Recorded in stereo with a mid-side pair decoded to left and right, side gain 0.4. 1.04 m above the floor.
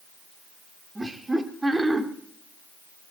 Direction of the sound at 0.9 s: 20° right.